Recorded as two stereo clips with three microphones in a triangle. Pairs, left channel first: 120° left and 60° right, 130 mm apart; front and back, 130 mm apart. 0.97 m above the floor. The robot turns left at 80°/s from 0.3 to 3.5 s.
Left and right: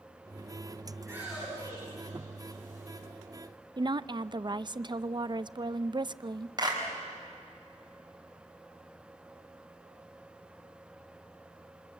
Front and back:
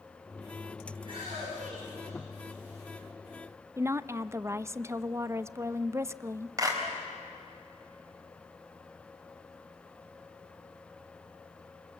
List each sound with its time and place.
1.0 s a shout: 120° right, 9.5 m; by 2.8 s 90° left, 9.5 m
3.8 s a woman speaking: 115° right, 0.5 m
6.6 s a clap: 115° right, 4.5 m